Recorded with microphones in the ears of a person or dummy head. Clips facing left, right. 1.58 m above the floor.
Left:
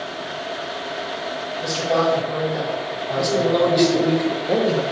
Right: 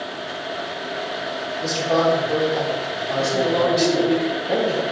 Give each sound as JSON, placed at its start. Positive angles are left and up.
{"t": 1.6, "sound": "a man speaking", "side_deg": 5, "distance_m": 1.1}
{"t": 3.2, "sound": "a man speaking", "side_deg": 50, "distance_m": 0.6}